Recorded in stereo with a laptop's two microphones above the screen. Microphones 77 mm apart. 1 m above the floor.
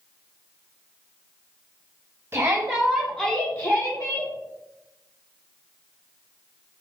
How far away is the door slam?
I don't hear a door slam.